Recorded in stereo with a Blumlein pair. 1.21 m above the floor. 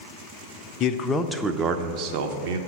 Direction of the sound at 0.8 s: 30° left.